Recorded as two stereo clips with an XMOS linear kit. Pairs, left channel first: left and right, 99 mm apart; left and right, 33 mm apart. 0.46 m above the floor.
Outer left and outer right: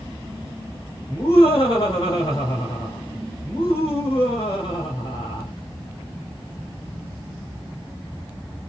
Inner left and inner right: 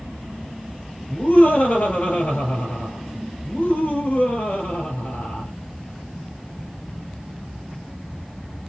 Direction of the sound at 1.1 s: 40° left (ahead or behind).